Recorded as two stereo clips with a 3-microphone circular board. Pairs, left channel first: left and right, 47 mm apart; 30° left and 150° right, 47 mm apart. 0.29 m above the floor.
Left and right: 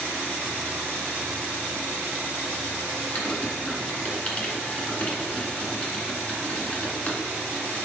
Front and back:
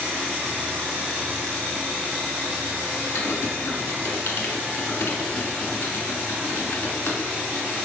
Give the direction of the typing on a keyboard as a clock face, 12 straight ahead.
11 o'clock.